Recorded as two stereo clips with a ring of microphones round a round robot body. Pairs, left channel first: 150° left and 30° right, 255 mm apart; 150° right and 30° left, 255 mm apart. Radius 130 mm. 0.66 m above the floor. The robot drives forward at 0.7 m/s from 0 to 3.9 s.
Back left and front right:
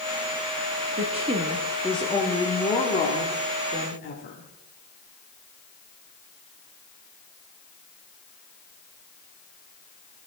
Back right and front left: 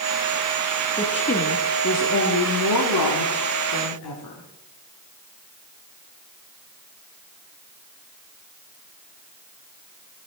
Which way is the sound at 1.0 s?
85° right.